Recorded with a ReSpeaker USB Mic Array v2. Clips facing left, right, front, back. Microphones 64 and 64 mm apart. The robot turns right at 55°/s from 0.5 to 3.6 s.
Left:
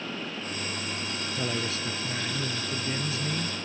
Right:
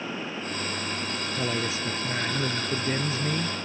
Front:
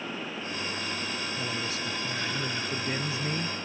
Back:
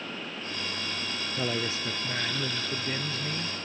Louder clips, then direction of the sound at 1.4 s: Right 2 dB, back 2 dB; 170° right.